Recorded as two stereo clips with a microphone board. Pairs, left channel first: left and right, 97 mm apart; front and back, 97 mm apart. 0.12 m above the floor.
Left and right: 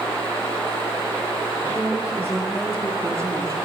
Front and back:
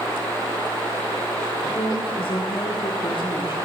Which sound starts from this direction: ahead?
A woman speaking, at 1.8 s.